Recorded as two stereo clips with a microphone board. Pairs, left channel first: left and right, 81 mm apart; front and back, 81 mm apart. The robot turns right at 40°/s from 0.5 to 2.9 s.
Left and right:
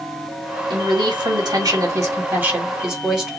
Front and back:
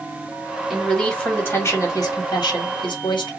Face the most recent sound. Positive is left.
turn(degrees=-10)